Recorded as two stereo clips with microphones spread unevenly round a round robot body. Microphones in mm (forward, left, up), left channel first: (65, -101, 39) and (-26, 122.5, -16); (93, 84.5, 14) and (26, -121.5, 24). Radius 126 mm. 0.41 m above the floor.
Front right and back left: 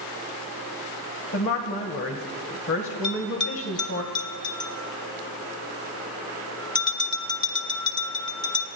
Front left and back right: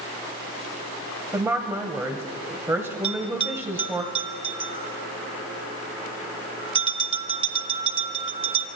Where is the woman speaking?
30° right, 1.9 m.